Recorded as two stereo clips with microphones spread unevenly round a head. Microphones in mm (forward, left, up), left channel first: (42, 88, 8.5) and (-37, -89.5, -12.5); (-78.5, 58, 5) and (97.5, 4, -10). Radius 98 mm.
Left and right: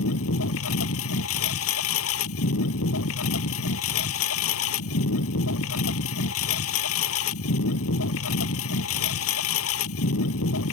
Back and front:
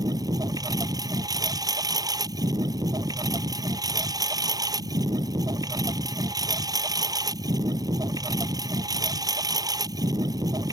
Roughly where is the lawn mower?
Ahead left.